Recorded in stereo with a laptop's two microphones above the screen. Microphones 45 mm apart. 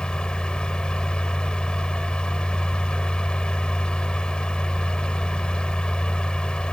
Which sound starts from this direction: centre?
A fan, at 0.0 s.